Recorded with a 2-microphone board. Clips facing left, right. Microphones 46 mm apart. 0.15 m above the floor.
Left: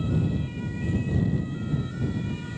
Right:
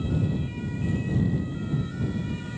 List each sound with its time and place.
Only background noise.